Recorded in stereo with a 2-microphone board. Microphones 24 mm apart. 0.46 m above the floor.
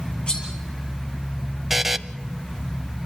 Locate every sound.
0.3 s cutlery clinking: 50° left (ahead or behind), 6.5 m
1.7 s a buzzer: 15° right (ahead or behind), 0.6 m